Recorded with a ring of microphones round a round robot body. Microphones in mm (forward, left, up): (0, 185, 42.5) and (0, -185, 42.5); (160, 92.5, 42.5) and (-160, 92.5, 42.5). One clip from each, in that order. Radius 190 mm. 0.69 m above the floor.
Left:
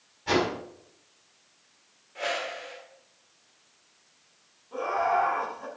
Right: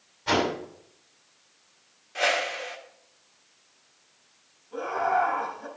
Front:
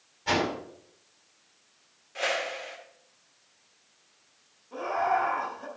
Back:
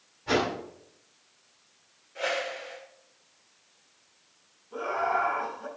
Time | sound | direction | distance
0.3 | a whoosh | 10° right | 5.5 m
2.1 | a whoosh | 50° right | 2 m
4.7 | laughter | 30° left | 6 m